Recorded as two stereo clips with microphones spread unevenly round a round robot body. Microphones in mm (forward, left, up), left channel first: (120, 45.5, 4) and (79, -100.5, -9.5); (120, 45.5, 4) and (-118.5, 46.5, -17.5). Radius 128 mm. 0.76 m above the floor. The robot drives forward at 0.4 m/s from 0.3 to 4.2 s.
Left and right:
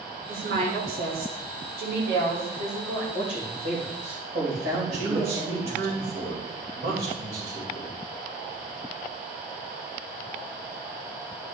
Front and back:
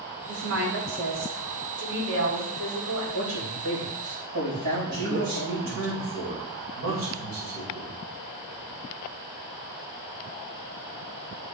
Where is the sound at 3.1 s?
155° right, 3 m.